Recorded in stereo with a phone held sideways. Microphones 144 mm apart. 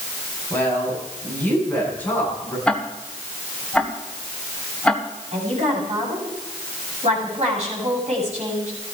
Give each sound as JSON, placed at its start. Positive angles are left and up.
{"t": 0.5, "sound": "a woman speaking", "side_deg": 15, "distance_m": 9.0}
{"t": 2.7, "sound": "ticking", "side_deg": 5, "distance_m": 1.5}
{"t": 5.3, "sound": "a woman speaking", "side_deg": -50, "distance_m": 7.5}